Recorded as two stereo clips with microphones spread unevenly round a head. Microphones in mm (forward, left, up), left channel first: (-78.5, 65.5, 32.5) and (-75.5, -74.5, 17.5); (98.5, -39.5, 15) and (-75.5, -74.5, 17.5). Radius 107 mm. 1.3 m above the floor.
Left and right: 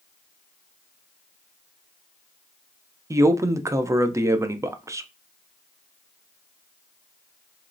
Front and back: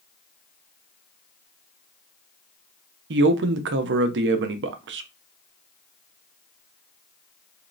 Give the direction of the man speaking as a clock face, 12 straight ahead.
5 o'clock.